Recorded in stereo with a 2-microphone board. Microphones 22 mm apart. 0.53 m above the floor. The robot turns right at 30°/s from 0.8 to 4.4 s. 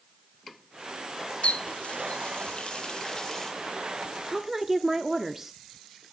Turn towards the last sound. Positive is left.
turn(degrees=-15)  # may be behind; listen again after turning